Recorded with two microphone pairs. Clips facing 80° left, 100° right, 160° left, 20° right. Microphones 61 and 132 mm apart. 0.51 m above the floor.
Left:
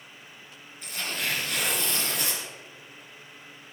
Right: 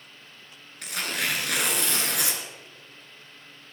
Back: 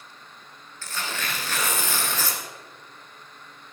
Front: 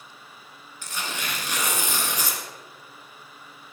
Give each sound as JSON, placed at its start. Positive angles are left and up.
{"t": 0.8, "sound": "tearing paper", "azimuth_deg": -90, "distance_m": 2.5}